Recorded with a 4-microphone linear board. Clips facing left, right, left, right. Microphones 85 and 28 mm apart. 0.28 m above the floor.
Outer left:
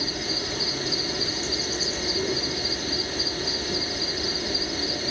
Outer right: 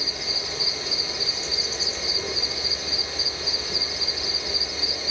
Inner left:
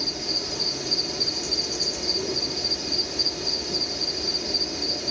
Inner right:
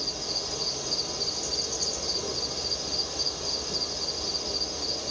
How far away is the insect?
About 2.5 m.